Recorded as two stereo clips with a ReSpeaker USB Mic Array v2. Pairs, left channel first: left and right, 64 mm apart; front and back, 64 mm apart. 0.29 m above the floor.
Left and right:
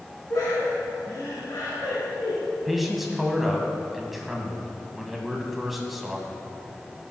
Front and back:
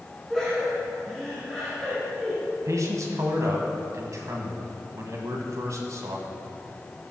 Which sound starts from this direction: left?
Laughter, at 0.3 s.